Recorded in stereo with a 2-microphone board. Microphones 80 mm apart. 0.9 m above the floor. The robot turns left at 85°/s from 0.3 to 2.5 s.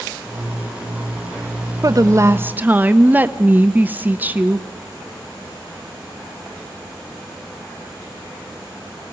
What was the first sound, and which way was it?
A woman speaking, 95° right.